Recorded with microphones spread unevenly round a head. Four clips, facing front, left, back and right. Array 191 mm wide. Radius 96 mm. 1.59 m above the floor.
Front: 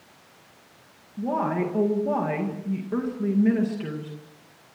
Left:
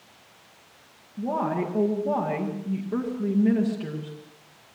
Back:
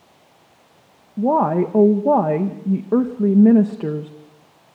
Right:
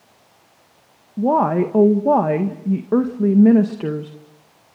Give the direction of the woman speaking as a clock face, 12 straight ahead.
5 o'clock.